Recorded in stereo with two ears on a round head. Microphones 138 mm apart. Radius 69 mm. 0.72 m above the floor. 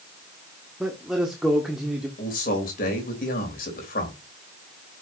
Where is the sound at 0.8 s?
5° right (ahead or behind), 1.6 m.